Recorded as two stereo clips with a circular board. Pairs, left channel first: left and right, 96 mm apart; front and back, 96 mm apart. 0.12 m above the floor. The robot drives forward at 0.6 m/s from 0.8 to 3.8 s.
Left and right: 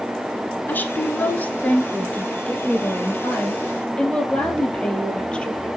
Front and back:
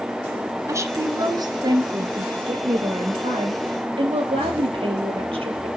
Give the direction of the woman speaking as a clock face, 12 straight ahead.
7 o'clock.